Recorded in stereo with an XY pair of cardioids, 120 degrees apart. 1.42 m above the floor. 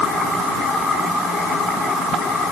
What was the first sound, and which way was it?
Only background noise.